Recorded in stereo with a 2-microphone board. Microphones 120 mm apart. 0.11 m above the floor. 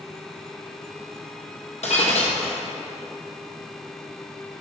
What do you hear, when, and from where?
1.8 s breaking glass: 70° left (ahead or behind), 1.8 m